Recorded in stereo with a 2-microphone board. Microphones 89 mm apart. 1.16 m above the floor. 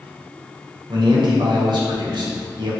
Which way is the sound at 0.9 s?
65° right (ahead or behind).